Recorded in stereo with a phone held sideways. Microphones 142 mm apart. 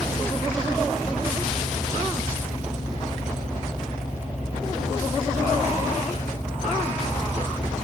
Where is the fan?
15° right (ahead or behind), 2 m.